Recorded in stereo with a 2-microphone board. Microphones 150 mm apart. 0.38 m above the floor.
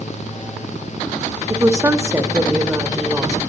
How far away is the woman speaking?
About 0.9 m.